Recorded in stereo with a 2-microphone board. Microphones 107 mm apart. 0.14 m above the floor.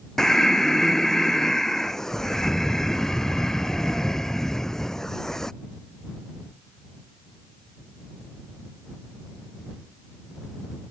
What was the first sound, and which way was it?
Breathing, 5° left (ahead or behind).